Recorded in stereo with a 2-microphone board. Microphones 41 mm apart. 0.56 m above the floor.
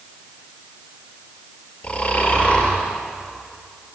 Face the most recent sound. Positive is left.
turn(degrees=35)  # may be behind; listen again after turning